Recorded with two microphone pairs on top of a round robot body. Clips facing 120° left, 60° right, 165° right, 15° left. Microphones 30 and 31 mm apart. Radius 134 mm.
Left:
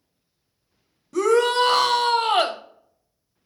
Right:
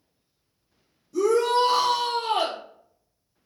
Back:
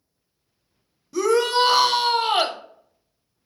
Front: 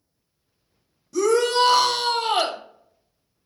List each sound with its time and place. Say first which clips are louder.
1.1 s a shout: left 2 dB, even; 120° left, 0.6 m